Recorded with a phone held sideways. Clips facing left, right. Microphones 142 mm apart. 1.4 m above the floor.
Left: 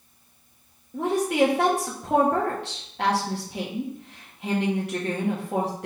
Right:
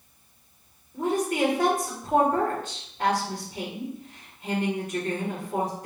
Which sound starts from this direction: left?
A woman speaking, at 0.9 s.